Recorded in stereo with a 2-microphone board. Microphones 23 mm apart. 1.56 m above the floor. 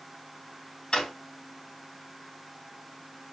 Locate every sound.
0.9 s a drawer: 45° left (ahead or behind), 2.5 m